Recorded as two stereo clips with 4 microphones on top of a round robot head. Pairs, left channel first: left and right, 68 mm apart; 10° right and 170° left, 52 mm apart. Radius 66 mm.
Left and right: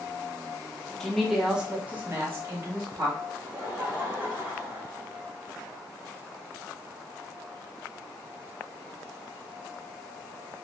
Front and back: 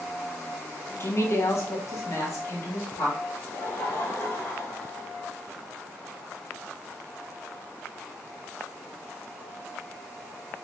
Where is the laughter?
25° right, 1.7 m.